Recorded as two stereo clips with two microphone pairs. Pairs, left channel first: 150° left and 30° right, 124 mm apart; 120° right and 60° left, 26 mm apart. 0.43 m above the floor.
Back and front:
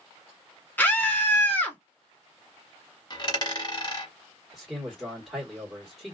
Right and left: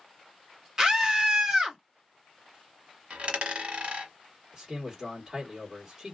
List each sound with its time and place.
0.8 s a scream: 90° left, 0.9 m
3.1 s a dropped coin: 95° left, 1.3 m
4.5 s a man speaking: 60° left, 1.4 m